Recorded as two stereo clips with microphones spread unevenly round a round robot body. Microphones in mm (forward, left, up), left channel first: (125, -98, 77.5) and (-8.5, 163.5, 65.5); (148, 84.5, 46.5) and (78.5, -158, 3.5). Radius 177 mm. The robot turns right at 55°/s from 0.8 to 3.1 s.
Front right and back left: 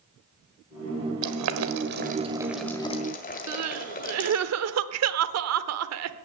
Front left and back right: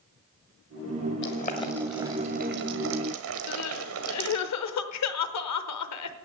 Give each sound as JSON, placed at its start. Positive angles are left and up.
{"t": 1.2, "sound": "boiling", "azimuth_deg": 130, "distance_m": 1.4}
{"t": 3.5, "sound": "crying", "azimuth_deg": 95, "distance_m": 0.9}